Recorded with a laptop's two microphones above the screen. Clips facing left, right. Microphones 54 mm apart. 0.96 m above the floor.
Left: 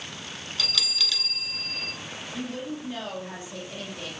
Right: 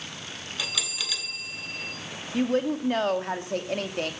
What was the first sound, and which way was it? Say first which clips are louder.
A bell: left 2 dB; 15° right (ahead or behind).